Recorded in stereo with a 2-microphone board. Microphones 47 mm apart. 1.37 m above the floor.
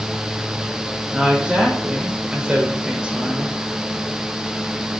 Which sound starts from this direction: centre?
A woman speaking, at 1.1 s.